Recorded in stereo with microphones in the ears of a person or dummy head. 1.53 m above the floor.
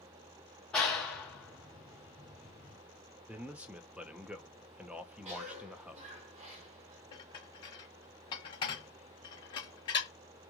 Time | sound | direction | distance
0.7 | a clap | 5° left (ahead or behind) | 0.6 m
3.3 | a man speaking | 10° right (ahead or behind) | 0.5 m
5.2 | a cough | 35° right (ahead or behind) | 1.2 m
7.1 | dishes clattering | 25° left (ahead or behind) | 1.0 m